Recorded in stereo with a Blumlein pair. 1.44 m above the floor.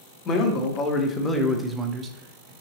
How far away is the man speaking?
About 1.3 m.